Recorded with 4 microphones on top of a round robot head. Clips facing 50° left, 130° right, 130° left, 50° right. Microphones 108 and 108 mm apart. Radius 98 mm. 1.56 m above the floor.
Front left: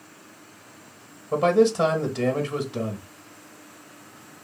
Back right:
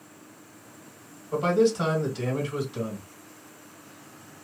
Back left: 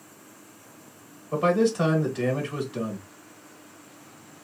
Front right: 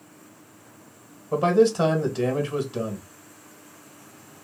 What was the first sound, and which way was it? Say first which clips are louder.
A man speaking: front left 3 dB, front right 3 dB; 15° left.